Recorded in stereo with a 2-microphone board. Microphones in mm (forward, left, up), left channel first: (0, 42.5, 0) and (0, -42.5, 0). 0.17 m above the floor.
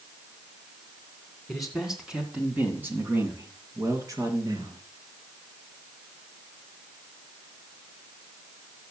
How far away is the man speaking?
About 1.7 m.